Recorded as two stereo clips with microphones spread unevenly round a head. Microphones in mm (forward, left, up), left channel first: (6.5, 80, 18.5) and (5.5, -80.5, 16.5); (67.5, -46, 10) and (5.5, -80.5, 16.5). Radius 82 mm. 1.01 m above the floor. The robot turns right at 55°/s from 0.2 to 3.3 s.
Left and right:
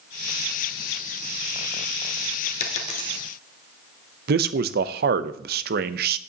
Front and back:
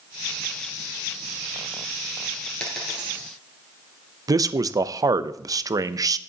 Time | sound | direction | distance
2.6 | a dropped coin | 110° left | 1.4 m
4.3 | a man speaking | 115° right | 0.6 m